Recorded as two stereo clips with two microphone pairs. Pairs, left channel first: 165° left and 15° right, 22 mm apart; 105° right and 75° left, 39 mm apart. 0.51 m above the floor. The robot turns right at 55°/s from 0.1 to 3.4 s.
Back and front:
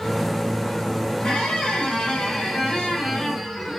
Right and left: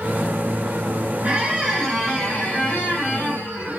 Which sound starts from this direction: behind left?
A squeak, at 1.2 s.